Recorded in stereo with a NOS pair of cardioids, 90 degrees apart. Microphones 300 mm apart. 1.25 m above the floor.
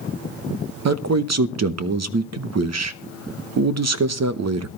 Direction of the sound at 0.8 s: 60° right.